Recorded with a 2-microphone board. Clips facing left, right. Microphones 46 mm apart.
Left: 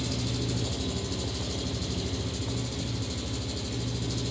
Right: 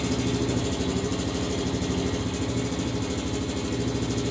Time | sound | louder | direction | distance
0.0 | an engine running | right 7 dB | 50° right (ahead or behind) | 3.5 m